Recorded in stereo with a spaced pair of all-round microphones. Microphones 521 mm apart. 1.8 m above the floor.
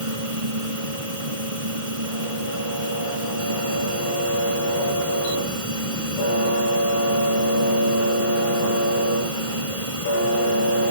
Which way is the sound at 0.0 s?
85° right.